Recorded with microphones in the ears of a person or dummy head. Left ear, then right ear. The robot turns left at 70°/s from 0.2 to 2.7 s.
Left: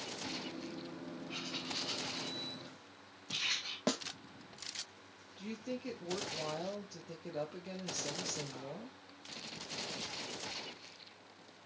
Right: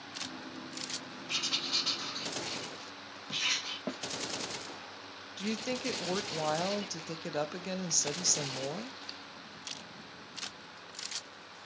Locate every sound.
1.3 s writing: 70° right (ahead or behind), 2.5 m; by 3.8 s 10° right (ahead or behind), 2.5 m
3.9 s a snare drum: 90° left, 0.6 m
5.4 s a woman speaking: 65° right (ahead or behind), 1.2 m